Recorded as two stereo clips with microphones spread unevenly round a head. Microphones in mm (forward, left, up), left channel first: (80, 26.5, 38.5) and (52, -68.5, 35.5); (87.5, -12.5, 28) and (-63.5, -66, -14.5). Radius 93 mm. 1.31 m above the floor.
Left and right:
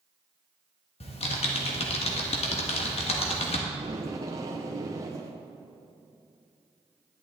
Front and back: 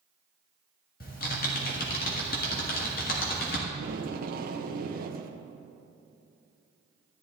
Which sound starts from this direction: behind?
Tape being pulled, at 3.7 s.